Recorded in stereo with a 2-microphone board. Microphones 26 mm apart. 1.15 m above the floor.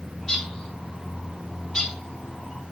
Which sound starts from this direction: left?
A bird, at 0.2 s.